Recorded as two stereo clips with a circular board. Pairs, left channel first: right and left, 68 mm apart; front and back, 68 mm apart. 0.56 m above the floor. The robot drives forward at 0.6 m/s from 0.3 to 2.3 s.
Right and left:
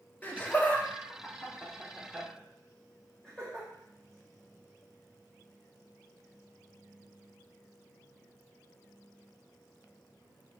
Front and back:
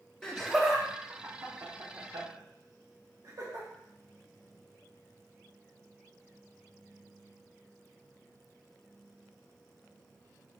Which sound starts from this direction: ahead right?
Laughter, at 0.2 s.